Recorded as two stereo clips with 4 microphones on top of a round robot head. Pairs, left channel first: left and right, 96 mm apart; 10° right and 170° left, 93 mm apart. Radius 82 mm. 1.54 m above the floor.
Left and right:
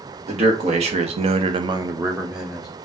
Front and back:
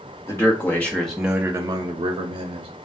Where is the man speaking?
75° right, 1.2 m; by 2.7 s 175° left, 0.9 m.